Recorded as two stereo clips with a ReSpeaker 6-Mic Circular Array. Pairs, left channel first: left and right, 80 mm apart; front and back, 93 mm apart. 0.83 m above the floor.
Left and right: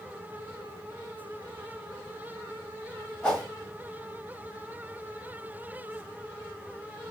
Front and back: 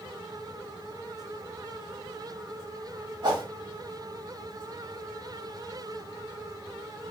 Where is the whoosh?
160° left, 1.7 m.